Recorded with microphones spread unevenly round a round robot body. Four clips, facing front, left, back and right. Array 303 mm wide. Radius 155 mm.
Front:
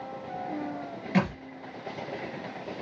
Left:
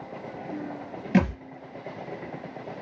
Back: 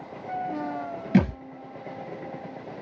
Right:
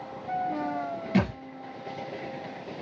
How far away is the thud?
About 1.9 m.